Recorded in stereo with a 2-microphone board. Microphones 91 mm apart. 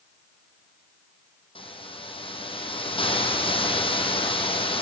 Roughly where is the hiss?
Left.